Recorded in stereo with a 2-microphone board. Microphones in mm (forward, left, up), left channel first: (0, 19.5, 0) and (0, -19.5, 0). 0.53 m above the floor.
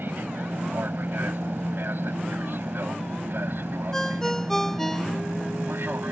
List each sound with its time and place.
0.0 s an aircraft: 65° right (ahead or behind); by 6.1 s 70° right (ahead or behind)
3.9 s a ringtone: 10° left (ahead or behind)